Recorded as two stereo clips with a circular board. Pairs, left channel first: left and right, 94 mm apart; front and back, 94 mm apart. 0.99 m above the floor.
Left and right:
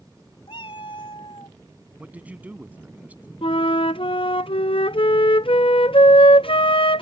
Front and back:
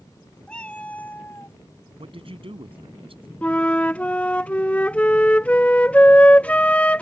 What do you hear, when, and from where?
0.5 s a cat meowing: 80° left; by 1.6 s 60° left
2.0 s a man speaking: 165° right
3.4 s a flute: 75° left